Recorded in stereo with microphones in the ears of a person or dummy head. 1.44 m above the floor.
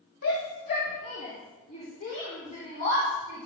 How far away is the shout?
About 2.5 m.